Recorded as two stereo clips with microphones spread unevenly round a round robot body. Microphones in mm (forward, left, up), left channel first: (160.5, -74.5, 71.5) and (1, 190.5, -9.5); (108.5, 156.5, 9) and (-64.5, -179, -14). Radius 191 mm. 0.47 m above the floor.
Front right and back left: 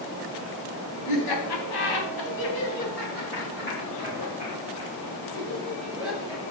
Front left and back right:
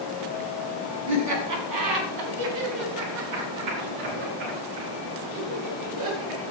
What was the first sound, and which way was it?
Laughter, 70° right.